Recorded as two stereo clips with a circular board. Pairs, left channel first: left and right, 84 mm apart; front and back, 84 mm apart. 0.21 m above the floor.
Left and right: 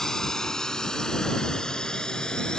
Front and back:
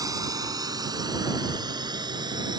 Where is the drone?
170° left.